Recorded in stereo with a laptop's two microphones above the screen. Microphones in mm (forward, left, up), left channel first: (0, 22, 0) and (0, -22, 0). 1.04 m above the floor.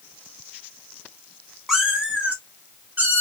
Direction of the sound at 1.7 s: 5° right (ahead or behind).